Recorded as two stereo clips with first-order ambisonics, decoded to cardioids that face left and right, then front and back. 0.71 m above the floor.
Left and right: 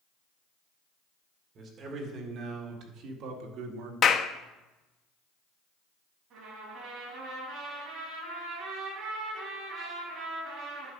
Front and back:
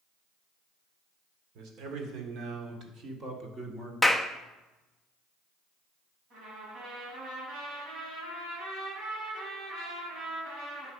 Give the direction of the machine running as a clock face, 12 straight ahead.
I don't hear a machine running.